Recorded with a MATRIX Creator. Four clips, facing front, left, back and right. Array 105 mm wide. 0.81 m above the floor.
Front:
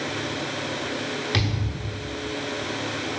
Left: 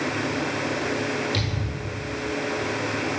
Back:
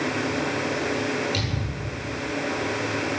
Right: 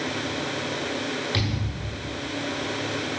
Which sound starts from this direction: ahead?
A thud, at 1.3 s.